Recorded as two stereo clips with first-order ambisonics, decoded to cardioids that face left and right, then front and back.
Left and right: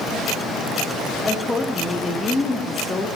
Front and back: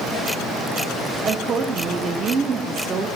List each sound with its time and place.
1.2 s a woman speaking: 150° left, 0.6 m